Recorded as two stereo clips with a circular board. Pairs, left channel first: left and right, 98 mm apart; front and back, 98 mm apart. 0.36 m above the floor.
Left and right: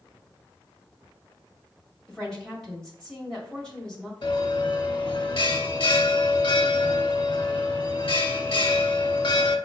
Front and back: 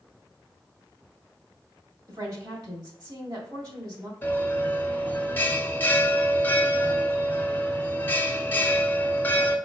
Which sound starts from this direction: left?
A bell, at 4.2 s.